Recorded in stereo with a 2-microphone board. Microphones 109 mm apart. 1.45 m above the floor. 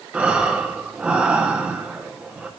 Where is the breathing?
10° right (ahead or behind), 1.5 m.